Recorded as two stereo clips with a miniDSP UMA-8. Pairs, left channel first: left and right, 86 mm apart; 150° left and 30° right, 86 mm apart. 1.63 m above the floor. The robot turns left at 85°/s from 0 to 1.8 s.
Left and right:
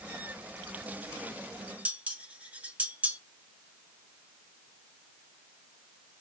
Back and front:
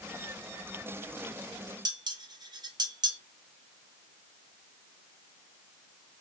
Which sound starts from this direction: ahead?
Dishes clattering, at 1.9 s.